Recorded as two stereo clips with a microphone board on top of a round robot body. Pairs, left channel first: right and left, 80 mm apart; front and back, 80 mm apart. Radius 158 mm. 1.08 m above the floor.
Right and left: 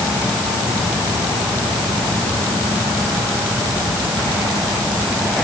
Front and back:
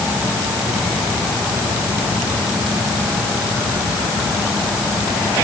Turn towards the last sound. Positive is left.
No sound to turn to.